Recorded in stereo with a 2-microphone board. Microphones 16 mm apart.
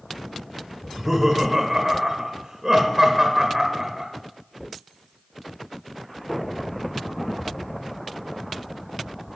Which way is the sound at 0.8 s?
25° right (ahead or behind).